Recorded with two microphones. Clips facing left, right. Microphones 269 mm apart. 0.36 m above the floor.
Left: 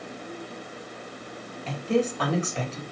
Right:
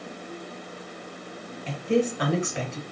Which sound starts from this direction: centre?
A woman speaking, at 1.7 s.